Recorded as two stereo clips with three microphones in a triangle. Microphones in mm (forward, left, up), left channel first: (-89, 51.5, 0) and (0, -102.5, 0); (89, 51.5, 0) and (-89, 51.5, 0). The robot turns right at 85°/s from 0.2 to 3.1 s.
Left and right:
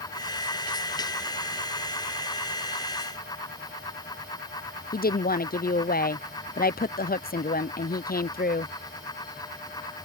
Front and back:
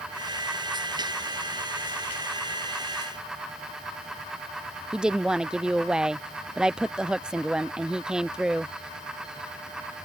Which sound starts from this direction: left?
A woman speaking, at 4.9 s.